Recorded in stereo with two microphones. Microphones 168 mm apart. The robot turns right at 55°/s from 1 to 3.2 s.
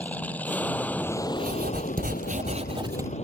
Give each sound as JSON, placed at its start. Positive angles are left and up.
{"t": 0.0, "sound": "an aircraft", "azimuth_deg": 10}
{"t": 1.4, "sound": "writing", "azimuth_deg": -115}